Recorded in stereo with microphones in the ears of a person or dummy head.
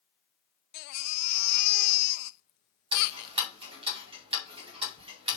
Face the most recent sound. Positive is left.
turn(degrees=-35)  # may be behind; listen again after turning